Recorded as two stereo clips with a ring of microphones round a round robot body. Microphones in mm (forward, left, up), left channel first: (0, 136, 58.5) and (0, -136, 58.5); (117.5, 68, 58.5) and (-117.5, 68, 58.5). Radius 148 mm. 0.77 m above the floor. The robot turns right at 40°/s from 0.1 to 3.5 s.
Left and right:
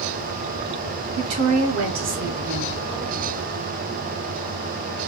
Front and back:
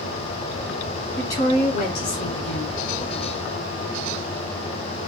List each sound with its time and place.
1.2 s a woman speaking: 80° right, 2 m; by 2.8 s 15° right, 2 m